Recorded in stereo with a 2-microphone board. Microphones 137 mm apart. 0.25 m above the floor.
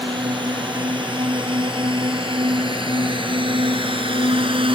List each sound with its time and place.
0.0 s a drone: 35° right (ahead or behind); by 4.7 s 40° right (ahead or behind)